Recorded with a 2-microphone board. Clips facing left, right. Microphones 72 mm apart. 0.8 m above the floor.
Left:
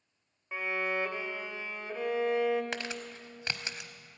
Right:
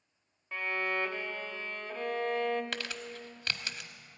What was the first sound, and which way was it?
A violin, 15° left (ahead or behind).